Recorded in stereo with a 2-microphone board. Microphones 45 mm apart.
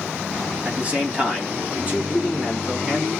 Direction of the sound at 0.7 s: 30° right (ahead or behind).